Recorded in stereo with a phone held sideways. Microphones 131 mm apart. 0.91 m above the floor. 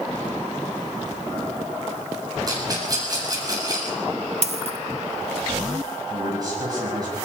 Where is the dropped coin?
55° right (ahead or behind), 1.2 m.